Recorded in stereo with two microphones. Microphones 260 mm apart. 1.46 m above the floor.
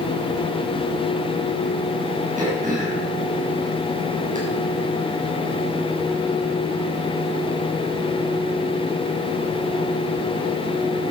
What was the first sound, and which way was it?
Throat clearing, 30° right (ahead or behind).